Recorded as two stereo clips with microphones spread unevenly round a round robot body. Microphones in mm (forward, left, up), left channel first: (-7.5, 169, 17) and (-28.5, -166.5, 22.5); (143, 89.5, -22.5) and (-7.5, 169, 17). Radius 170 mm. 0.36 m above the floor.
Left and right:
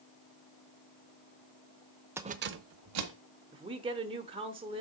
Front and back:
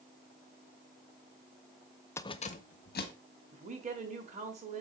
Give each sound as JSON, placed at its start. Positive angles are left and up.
{"t": 2.2, "sound": "keys jangling", "azimuth_deg": -15, "distance_m": 0.5}
{"t": 3.5, "sound": "a woman speaking", "azimuth_deg": -160, "distance_m": 1.0}